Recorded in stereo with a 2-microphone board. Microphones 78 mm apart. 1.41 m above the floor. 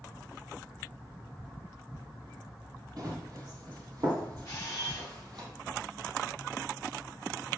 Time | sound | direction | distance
3.0 | running footsteps | 50° right (ahead or behind) | 3 m
4.5 | a camera shutter | 40° left (ahead or behind) | 4.5 m